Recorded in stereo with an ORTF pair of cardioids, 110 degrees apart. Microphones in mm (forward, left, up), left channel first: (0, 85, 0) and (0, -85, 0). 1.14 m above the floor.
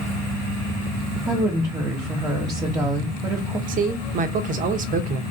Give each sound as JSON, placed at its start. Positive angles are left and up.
{"t": 1.3, "sound": "a woman speaking", "azimuth_deg": -25, "distance_m": 1.2}
{"t": 3.7, "sound": "a man speaking", "azimuth_deg": -55, "distance_m": 0.7}